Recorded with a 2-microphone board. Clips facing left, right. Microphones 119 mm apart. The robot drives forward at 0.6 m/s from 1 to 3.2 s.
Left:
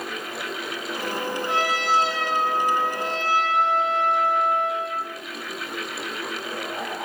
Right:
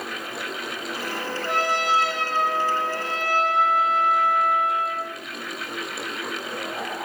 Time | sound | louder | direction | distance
1.4 | a trumpet | right 2 dB | 50° right (ahead or behind) | 1.8 m